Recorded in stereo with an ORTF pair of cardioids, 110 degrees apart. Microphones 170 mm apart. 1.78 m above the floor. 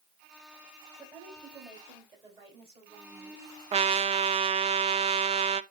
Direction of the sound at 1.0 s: 25° right.